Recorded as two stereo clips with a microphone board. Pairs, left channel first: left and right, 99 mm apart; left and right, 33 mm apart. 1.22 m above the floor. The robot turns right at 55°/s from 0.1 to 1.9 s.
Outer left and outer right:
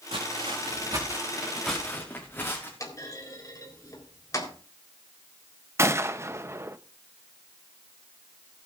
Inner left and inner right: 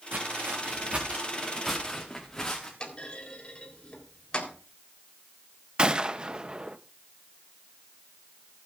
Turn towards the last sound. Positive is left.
turn(degrees=-30)  # may be behind; listen again after turning